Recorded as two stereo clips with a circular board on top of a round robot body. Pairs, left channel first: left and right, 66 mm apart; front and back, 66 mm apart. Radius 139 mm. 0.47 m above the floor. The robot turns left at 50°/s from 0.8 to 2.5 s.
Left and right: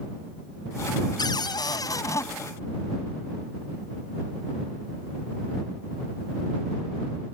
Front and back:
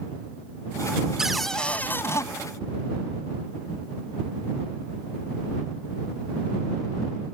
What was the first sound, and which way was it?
A cupboard door, 100° left.